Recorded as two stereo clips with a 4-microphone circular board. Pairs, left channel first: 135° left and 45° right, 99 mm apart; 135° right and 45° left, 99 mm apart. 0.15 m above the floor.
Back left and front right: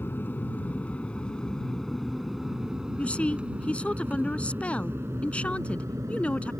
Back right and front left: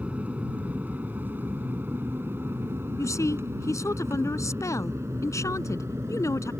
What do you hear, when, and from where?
0.0 s an aircraft: 100° left; by 6.6 s 5° right
3.0 s a woman speaking: 155° right